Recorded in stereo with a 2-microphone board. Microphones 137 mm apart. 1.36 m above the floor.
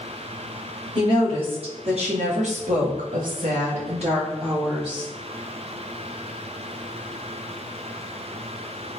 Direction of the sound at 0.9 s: 40° right (ahead or behind).